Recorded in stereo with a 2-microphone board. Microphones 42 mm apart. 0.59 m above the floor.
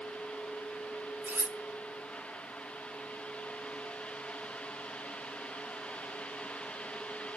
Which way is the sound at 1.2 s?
55° right (ahead or behind).